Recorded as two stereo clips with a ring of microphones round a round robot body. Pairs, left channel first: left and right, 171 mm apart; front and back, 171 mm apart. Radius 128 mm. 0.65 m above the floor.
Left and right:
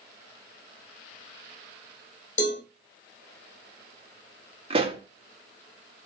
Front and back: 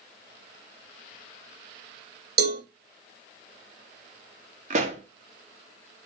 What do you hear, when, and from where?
2.4 s a cowbell: 155° left, 4.5 m
4.7 s a pop: 140° right, 1.3 m